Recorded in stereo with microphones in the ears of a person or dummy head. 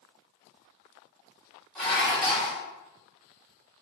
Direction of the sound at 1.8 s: 5° left (ahead or behind).